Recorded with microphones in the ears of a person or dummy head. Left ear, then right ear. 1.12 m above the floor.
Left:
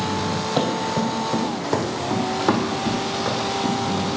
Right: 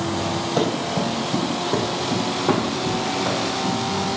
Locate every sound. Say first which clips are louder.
0.6 s running footsteps: left 1 dB; 20° left (ahead or behind), 2 m; by 4.1 s 65° left (ahead or behind), 4.5 m